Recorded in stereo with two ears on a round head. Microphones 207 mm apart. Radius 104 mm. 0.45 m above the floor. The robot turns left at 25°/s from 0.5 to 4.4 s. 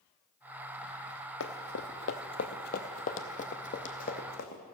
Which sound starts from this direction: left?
Running footsteps, at 1.4 s.